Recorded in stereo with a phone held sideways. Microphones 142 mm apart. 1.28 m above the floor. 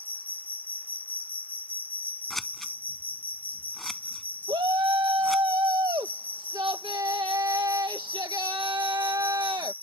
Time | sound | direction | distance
0.0 | an insect | 15° left (ahead or behind) | ?
2.3 | scissors | centre (ahead or behind) | ?
4.5 | a shout | 35° right (ahead or behind) | ?